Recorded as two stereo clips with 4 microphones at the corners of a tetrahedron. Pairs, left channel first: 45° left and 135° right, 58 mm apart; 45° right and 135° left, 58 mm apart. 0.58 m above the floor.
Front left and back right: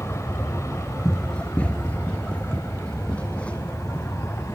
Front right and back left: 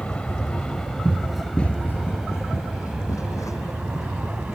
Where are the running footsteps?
115° left; by 4.4 s 25° right.